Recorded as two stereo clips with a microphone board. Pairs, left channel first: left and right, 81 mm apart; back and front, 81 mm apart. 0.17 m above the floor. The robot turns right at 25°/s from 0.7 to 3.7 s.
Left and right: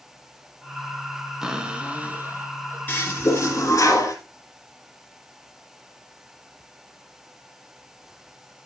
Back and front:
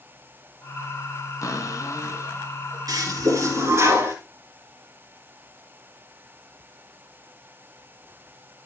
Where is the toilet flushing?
25° left, 2.5 m; by 4.2 s 50° left, 2.5 m.